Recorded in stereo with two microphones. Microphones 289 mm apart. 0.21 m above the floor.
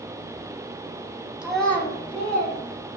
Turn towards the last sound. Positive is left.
turn(degrees=35)  # may be behind; listen again after turning